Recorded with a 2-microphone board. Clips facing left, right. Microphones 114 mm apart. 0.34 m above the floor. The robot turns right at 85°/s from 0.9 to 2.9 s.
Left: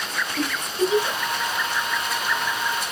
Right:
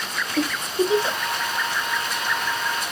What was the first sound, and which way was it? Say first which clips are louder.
A giggle: right 2 dB; 35° right (ahead or behind).